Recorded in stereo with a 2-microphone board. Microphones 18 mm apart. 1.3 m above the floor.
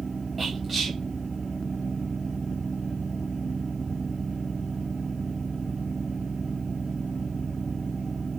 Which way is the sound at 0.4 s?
Centre (ahead or behind).